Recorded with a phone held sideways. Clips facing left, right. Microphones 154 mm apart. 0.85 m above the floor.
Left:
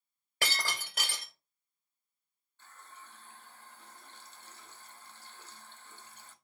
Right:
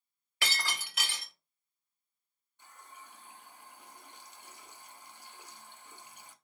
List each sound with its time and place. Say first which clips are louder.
0.4 s breaking glass: left 1 dB; 45° left (ahead or behind), 1.8 m
2.6 s a running tap: right 1 dB; 15° right (ahead or behind), 0.5 m